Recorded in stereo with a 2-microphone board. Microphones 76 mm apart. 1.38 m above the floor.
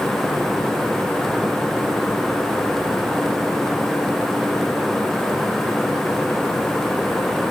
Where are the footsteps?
I don't hear footsteps.